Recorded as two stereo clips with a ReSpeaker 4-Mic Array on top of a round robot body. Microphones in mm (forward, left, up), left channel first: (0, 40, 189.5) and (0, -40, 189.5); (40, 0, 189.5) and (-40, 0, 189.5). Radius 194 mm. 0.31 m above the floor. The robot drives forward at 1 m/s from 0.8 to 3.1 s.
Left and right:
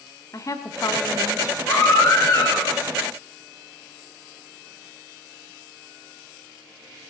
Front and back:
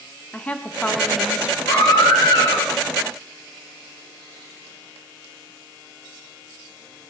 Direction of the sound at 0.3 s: 65° left.